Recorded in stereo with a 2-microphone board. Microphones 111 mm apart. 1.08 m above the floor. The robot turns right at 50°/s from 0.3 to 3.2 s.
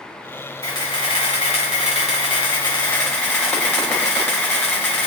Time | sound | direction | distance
0.6 | a camera shutter | 35° left | 1.8 m